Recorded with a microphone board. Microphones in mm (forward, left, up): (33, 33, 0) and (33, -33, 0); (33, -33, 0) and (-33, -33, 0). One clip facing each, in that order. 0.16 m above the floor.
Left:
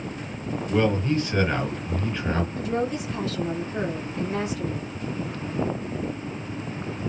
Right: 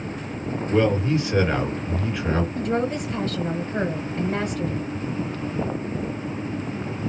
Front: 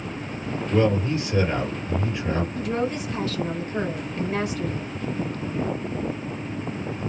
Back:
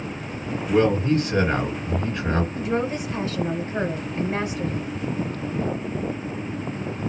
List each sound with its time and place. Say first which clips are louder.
0.7 s a man speaking: right 2 dB, back 3 dB; 170° right, 2.5 m
2.6 s a woman speaking: right 2 dB, back 1 dB; 120° right, 1.9 m